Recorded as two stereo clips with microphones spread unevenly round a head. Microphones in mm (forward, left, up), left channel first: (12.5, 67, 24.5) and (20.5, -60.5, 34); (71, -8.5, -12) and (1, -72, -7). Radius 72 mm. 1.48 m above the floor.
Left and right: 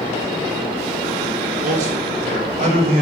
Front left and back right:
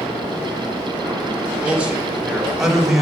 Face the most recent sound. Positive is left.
turn(degrees=-50)